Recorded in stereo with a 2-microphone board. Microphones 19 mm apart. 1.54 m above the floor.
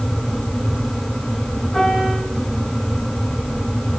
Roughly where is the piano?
Left.